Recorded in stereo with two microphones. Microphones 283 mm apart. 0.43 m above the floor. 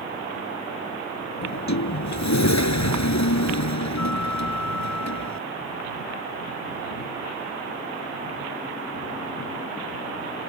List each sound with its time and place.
1.4 s a sliding door: 75° left (ahead or behind)